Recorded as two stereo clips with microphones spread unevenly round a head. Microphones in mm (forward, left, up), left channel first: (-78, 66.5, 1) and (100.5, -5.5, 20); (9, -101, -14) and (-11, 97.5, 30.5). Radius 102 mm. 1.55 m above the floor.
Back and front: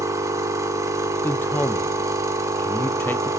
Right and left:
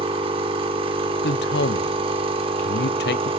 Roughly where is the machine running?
Ahead left.